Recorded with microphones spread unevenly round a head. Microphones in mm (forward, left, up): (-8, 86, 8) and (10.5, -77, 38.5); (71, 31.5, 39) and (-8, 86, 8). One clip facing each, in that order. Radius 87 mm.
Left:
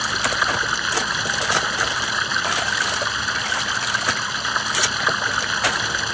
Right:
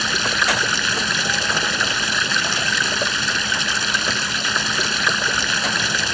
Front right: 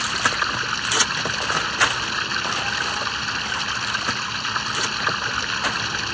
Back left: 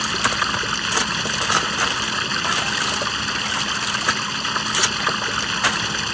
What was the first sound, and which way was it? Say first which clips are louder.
Running water: right 1 dB, back left 1 dB; 145° right.